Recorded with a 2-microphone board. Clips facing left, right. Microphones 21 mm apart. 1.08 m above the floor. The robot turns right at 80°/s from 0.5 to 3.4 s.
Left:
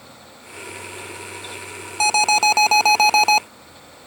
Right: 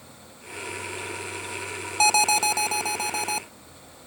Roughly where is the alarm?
Ahead.